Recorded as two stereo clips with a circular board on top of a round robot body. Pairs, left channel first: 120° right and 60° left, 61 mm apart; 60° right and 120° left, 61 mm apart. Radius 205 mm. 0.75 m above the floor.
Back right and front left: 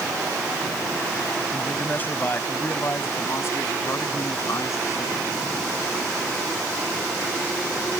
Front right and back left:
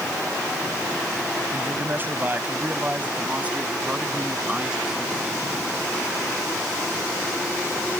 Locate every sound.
1.5 s a man speaking: 175° left; by 5.5 s 155° right